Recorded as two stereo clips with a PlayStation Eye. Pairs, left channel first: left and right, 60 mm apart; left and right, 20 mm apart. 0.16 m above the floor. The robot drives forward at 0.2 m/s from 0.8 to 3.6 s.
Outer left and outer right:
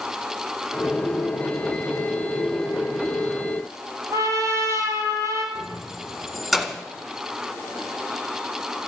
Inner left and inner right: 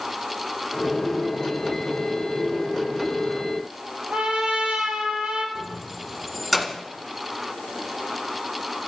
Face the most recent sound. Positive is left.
turn(degrees=0)  # may be behind; listen again after turning